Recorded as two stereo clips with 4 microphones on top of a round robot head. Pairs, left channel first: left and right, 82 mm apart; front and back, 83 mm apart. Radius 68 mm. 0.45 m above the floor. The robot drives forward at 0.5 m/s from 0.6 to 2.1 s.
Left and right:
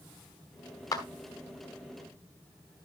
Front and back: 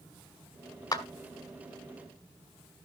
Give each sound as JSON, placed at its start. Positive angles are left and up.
{"t": 0.9, "sound": "a clap", "azimuth_deg": 40, "distance_m": 1.7}